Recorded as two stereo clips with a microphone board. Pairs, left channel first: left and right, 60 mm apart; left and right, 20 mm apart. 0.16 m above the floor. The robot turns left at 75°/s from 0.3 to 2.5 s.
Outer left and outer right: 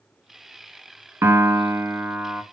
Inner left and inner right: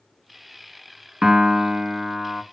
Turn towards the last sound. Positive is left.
turn(degrees=-170)